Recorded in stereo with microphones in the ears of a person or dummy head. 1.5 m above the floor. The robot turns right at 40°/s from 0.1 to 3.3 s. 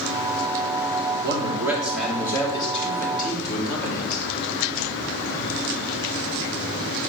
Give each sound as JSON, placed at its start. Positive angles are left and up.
{"t": 1.2, "sound": "a man speaking", "azimuth_deg": -30, "distance_m": 3.0}